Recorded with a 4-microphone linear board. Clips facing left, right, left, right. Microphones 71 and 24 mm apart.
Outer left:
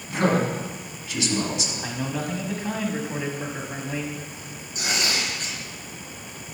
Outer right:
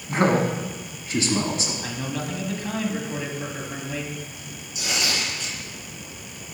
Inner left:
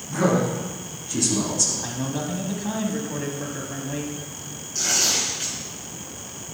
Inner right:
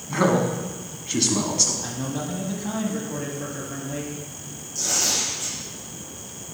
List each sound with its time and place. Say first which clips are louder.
0.1 s a man speaking: outer right 2 dB, inner right 1 dB; 45° right (ahead or behind), 1.4 m
1.8 s a man speaking: outer left 1 dB, inner left 1 dB; 15° left (ahead or behind), 1.1 m
4.8 s tearing paper: outer left 1 dB, inner left 2 dB; 50° left (ahead or behind), 3 m